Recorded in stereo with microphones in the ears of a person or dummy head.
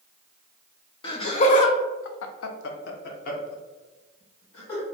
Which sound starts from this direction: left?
Laughter, at 1.0 s.